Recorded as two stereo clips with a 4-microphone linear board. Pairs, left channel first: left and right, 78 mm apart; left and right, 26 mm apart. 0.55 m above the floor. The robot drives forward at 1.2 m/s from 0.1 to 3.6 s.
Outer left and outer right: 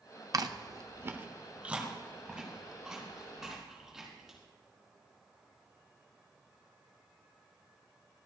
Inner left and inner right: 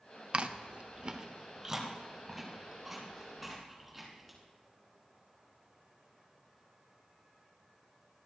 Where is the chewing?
50° right (ahead or behind), 0.6 m; by 4.4 s 5° right (ahead or behind), 3.5 m.